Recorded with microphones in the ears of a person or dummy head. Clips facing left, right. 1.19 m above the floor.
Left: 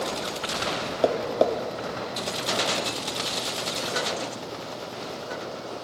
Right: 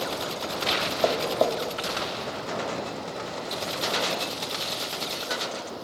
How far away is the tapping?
About 1.2 m.